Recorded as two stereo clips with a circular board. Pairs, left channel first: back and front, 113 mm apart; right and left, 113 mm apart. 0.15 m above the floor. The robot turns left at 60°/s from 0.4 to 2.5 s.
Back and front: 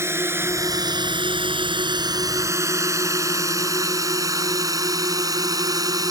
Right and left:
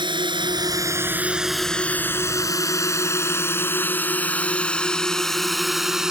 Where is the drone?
60° left; by 6.1 s 10° left.